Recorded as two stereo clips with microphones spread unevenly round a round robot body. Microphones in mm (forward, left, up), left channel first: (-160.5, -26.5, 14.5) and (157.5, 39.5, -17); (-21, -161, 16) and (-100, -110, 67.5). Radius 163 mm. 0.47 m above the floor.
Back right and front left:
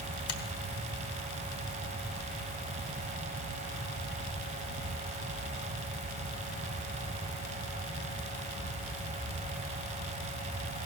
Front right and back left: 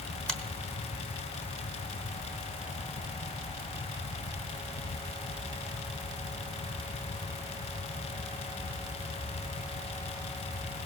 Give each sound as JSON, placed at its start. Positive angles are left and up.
{"t": 0.3, "sound": "a finger snap", "azimuth_deg": -100, "distance_m": 1.6}